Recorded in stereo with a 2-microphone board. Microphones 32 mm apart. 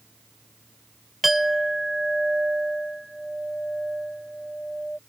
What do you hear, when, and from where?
1.2 s a clink: 5° right (ahead or behind)